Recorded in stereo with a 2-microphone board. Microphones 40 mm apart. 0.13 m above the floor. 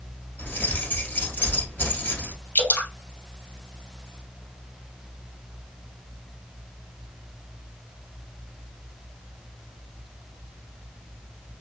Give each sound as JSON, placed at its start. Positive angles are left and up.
{"t": 0.4, "sound": "keys jangling", "side_deg": 55, "distance_m": 1.8}
{"t": 2.5, "sound": "dripping", "side_deg": 65, "distance_m": 2.0}